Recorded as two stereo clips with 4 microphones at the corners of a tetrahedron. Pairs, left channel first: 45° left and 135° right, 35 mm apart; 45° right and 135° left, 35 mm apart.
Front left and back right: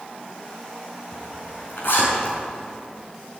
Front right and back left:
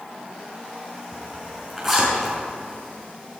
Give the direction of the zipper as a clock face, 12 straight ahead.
10 o'clock.